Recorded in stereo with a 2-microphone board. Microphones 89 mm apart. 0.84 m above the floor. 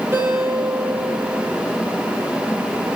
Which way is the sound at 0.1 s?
30° right (ahead or behind).